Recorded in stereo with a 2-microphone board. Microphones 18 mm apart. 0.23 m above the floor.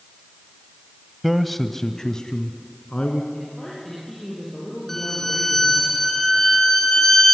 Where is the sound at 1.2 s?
10° right (ahead or behind), 1.0 m; by 3.2 s 60° left (ahead or behind), 2.5 m.